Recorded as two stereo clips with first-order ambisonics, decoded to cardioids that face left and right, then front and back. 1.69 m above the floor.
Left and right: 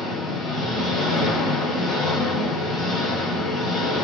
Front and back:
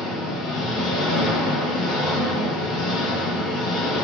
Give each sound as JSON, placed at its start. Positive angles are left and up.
{"t": 0.0, "sound": "an engine running", "azimuth_deg": 20, "distance_m": 1.3}